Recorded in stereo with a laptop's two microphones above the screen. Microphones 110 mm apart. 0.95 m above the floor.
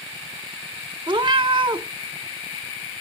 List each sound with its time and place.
1.1 s a cat meowing: 45° right (ahead or behind), 0.6 m